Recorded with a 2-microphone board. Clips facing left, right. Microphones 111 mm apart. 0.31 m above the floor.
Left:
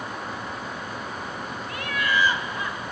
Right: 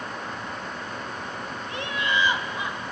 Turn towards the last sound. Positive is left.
turn(degrees=-15)  # may be behind; listen again after turning